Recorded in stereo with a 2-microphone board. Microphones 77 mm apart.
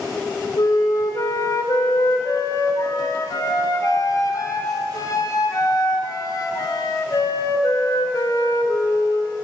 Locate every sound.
0.6 s a flute: 55° left (ahead or behind), 2.5 m